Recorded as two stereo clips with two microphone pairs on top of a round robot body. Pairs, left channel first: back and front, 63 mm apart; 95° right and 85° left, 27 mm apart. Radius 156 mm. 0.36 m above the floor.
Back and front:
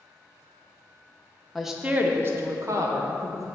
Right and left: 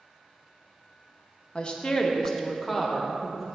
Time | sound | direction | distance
1.6 | a woman speaking | 85° right | 1.0 m